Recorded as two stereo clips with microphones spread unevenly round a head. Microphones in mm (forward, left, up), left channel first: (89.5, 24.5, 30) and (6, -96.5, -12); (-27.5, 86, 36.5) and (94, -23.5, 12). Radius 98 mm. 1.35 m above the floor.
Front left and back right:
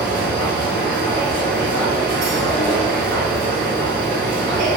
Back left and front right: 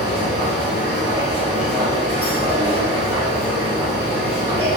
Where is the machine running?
125° right, 1.2 m.